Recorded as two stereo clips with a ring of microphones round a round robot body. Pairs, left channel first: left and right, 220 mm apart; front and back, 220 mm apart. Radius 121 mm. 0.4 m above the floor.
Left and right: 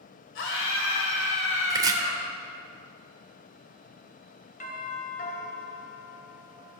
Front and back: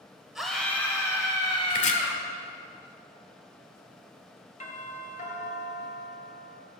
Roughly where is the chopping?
Ahead right.